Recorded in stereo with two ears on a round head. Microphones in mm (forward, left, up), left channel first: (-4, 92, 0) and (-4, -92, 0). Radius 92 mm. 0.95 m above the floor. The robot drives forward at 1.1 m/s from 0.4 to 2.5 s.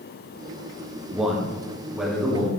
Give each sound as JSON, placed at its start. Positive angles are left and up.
{"t": 1.1, "sound": "a man speaking", "side_deg": -5, "distance_m": 1.4}